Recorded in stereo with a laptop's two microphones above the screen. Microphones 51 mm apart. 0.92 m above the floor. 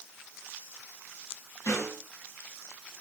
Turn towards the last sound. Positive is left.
turn(degrees=75)  # may be behind; listen again after turning